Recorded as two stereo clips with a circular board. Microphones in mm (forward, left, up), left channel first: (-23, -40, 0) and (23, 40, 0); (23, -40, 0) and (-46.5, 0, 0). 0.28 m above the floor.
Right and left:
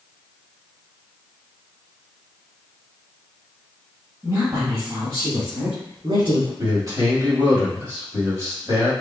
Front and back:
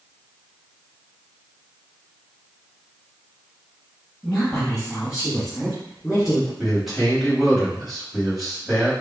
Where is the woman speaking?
50° left, 1.5 m; by 6.5 s 65° left, 3 m.